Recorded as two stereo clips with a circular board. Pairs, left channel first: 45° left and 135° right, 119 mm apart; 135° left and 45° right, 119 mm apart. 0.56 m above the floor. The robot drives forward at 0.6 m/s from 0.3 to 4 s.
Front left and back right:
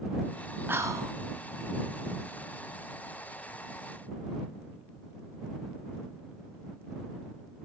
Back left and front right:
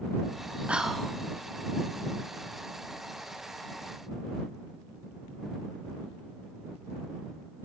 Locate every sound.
0.7 s whispering: 105° right, 0.6 m; by 1.1 s 150° right, 0.6 m